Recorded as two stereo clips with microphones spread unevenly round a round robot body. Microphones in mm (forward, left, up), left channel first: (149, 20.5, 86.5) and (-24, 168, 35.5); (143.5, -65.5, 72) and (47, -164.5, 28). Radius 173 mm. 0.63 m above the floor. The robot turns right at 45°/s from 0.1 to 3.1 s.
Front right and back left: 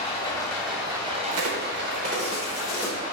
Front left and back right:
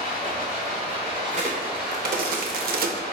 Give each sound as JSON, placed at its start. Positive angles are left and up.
{"t": 0.0, "sound": "running water", "azimuth_deg": 25, "distance_m": 2.0}
{"t": 1.3, "sound": "a crack", "azimuth_deg": 170, "distance_m": 0.7}